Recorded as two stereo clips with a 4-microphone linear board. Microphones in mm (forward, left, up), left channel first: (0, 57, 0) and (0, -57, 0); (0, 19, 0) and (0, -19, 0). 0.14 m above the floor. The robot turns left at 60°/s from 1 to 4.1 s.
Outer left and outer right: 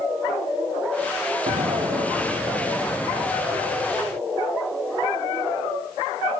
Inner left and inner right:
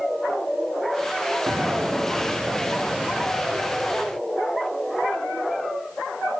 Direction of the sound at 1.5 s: 105° right.